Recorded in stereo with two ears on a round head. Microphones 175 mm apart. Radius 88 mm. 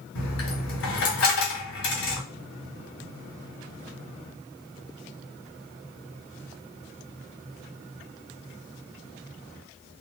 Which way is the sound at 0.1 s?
75° left (ahead or behind).